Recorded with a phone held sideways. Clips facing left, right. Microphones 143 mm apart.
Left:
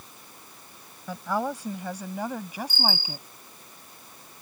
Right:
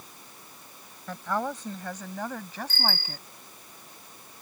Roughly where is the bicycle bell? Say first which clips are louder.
Left 2 dB; centre.